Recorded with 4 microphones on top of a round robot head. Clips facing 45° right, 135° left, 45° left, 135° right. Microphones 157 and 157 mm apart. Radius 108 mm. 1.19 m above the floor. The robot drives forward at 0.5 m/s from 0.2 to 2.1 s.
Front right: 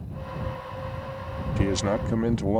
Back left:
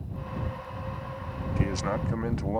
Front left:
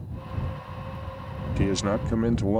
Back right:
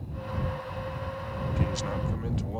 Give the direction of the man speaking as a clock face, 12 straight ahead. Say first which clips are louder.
Front right 5 dB, front left 9 dB; 11 o'clock.